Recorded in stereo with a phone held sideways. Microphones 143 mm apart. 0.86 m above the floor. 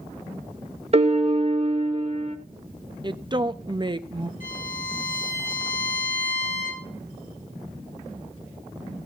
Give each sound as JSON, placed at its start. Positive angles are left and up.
{"t": 0.9, "sound": "a piano", "side_deg": -45, "distance_m": 0.6}
{"t": 3.0, "sound": "a woman speaking", "side_deg": -30, "distance_m": 0.7}
{"t": 4.4, "sound": "a violin", "side_deg": 75, "distance_m": 8.5}